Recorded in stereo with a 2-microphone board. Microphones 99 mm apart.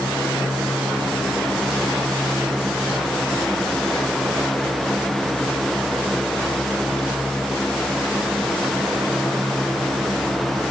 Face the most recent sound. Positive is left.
No sound to turn to.